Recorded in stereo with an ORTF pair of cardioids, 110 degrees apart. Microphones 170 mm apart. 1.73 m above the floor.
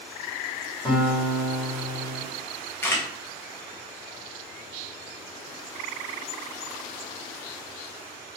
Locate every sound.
0.8 s a guitar: 30° left, 1.6 m
2.8 s a camera shutter: 15° left, 1.2 m